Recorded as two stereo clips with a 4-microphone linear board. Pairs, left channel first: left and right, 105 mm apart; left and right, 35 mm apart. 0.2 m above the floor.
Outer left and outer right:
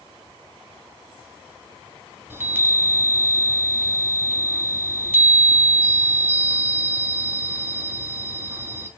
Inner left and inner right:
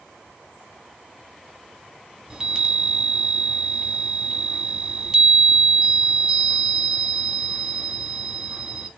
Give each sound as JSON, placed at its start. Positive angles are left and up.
{"t": 2.3, "sound": "a chime", "side_deg": -20, "distance_m": 1.0}